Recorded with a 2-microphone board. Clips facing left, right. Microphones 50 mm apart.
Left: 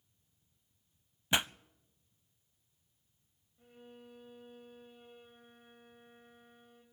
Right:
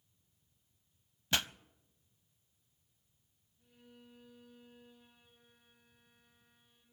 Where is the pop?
20° left (ahead or behind), 0.6 m.